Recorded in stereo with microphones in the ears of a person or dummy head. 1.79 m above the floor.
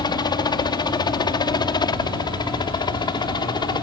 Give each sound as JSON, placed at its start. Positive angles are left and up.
{"t": 0.0, "sound": "a helicopter", "side_deg": 20}